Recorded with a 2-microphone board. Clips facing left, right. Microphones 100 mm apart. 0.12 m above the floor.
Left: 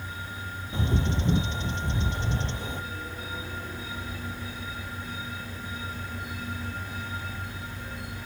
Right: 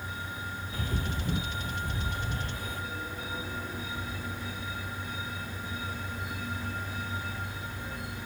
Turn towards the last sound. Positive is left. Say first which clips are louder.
# left 8 dB
turn(degrees=25)  # may be behind; listen again after turning